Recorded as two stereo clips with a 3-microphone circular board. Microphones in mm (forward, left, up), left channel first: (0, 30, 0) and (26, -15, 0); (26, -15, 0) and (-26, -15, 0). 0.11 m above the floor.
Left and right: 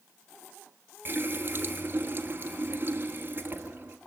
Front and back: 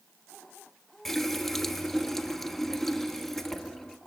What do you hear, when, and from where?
1.1 s a running tap: 85° right, 1.4 m